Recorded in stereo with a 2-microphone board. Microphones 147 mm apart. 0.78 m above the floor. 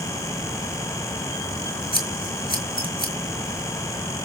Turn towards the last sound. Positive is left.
turn(degrees=-35)  # may be behind; listen again after turning